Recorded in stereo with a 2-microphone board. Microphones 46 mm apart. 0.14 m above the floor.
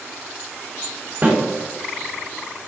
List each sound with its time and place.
1.2 s a snare drum: 30° right (ahead or behind), 1.6 m